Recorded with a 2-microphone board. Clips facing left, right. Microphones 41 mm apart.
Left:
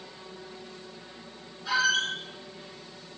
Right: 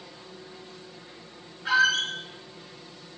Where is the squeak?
50° right (ahead or behind), 1.2 m.